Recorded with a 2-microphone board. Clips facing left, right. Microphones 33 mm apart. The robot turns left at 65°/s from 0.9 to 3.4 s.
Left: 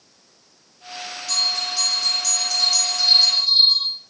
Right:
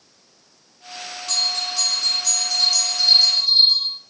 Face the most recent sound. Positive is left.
turn(degrees=140)